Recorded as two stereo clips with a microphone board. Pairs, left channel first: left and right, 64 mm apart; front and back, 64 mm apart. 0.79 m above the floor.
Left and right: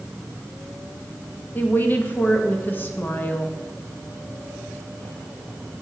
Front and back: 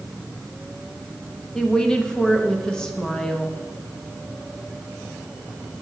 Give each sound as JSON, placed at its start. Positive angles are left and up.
{"t": 1.6, "sound": "a woman speaking", "azimuth_deg": 70, "distance_m": 1.0}